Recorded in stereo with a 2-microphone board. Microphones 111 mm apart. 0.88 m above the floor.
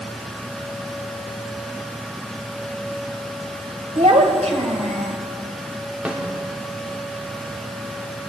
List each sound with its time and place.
4.0 s a child speaking: 80° right, 2 m
6.0 s a snare drum: 15° right (ahead or behind), 2.5 m